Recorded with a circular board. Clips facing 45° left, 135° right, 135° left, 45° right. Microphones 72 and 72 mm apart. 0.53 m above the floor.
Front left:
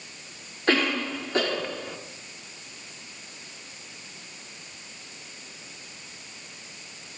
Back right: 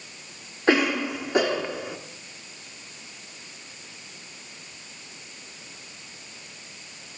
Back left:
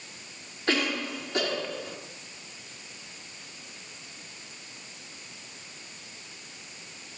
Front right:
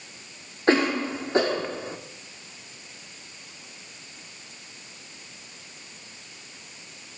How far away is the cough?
About 1.1 m.